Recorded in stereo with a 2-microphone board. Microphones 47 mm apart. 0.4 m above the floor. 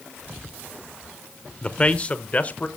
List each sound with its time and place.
1.6 s a man speaking: 25° left (ahead or behind), 0.8 m; by 2.7 s 30° left (ahead or behind), 1.1 m